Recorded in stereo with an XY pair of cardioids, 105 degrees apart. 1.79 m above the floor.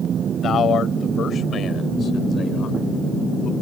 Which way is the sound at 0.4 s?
55° left.